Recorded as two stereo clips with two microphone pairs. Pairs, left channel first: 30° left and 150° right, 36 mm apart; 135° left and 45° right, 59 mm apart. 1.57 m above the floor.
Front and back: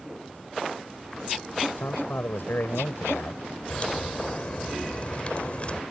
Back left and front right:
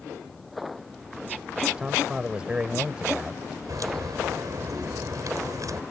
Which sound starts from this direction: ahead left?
A man speaking, at 1.8 s.